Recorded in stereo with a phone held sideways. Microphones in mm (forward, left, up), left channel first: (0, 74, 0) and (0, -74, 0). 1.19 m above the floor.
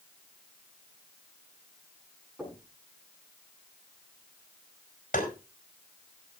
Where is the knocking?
5° right (ahead or behind), 8.5 m.